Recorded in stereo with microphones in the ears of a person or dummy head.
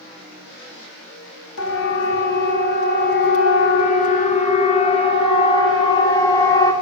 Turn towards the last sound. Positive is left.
turn(degrees=15)  # may be behind; listen again after turning